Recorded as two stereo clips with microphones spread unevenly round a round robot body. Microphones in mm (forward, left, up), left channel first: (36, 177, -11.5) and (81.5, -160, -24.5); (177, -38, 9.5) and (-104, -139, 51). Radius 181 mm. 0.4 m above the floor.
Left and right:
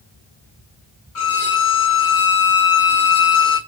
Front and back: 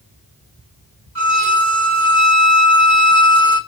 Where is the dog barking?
No dog barking in this recording.